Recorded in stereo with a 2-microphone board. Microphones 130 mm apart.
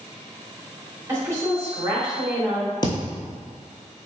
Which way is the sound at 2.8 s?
35° left (ahead or behind).